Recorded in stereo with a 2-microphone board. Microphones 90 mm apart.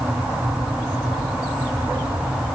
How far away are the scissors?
I don't hear scissors.